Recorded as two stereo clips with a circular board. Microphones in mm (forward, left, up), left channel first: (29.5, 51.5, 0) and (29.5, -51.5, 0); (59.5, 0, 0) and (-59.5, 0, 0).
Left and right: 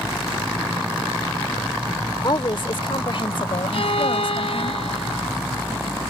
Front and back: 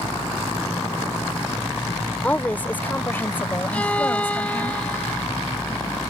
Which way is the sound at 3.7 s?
80° left.